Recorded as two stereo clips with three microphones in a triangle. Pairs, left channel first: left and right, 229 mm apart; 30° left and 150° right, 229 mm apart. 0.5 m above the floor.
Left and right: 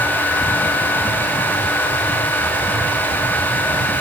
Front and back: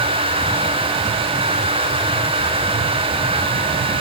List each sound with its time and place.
Only background noise.